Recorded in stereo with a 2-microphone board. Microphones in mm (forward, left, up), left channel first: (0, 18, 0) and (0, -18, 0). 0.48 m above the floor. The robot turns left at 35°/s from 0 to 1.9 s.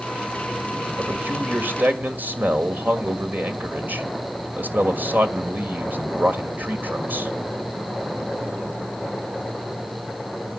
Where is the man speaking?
80° right, 1.8 m; by 7.3 s 115° right, 1.8 m.